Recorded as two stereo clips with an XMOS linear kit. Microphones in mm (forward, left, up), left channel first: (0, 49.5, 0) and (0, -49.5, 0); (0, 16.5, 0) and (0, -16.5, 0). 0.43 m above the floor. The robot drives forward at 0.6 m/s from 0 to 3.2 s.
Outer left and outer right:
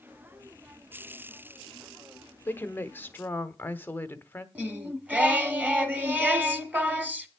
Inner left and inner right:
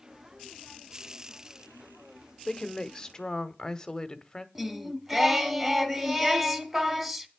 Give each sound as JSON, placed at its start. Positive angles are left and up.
{"t": 2.5, "sound": "a woman speaking", "side_deg": 20, "distance_m": 0.9}
{"t": 4.5, "sound": "singing", "side_deg": -15, "distance_m": 1.3}